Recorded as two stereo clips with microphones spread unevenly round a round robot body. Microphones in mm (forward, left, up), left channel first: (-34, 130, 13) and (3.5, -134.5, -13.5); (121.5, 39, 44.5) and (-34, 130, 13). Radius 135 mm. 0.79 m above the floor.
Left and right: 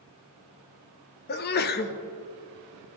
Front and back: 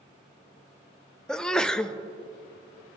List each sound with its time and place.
1.3 s a sneeze: 70° left, 0.6 m